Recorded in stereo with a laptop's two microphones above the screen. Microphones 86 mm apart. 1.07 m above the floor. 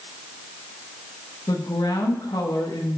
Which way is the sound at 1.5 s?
60° left (ahead or behind).